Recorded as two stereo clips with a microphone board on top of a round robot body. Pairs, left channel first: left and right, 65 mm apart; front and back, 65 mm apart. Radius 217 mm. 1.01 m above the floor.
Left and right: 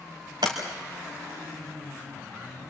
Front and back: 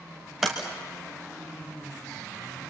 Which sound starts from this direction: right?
A sliding door, at 0.4 s.